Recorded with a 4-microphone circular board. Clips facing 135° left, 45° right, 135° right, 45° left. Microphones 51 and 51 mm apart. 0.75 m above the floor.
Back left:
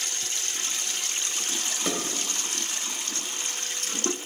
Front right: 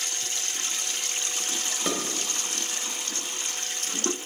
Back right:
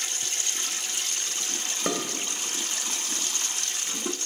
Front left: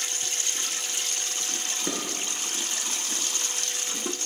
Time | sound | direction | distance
1.9 | dishes clattering | 130° right | 2 m